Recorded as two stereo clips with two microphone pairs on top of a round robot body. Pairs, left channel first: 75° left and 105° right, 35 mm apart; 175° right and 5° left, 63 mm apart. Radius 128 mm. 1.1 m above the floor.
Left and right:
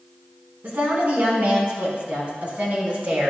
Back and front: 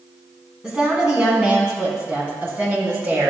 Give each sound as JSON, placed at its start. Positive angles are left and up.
{"t": 0.6, "sound": "a woman speaking", "azimuth_deg": -75, "distance_m": 4.5}